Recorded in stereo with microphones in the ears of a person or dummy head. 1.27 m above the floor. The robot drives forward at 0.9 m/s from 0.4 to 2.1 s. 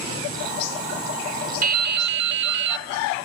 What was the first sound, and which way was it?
Dripping, 40° right (ahead or behind).